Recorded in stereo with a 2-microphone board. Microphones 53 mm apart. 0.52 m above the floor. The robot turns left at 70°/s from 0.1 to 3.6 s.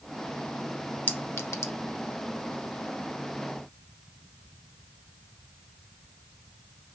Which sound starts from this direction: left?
A clink, at 1.1 s.